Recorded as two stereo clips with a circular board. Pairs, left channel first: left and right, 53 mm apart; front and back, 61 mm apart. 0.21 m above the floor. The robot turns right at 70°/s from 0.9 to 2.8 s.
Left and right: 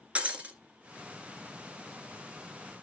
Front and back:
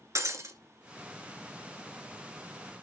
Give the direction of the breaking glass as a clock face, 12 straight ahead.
5 o'clock.